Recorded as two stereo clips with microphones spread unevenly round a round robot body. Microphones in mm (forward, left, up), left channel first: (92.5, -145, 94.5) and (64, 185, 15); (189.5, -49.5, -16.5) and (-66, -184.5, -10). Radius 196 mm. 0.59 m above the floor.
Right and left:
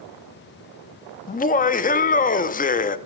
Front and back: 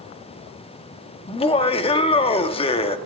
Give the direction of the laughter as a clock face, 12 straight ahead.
12 o'clock.